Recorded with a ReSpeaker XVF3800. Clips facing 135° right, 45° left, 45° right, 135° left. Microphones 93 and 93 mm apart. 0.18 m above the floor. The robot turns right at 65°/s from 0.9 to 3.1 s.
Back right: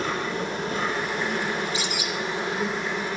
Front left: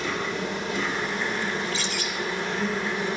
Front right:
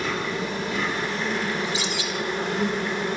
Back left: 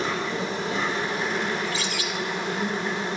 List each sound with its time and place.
0.0 s an insect: 165° right, 3.5 m; by 3.2 s 20° right, 3.5 m
1.6 s a bird: 95° right, 0.9 m; by 2.1 s 65° right, 0.9 m